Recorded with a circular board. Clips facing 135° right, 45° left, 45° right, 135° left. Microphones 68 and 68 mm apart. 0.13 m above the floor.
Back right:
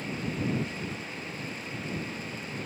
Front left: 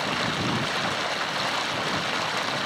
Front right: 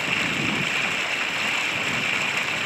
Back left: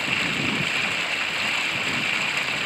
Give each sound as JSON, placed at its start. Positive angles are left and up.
{"t": 0.0, "sound": "running water", "azimuth_deg": 40}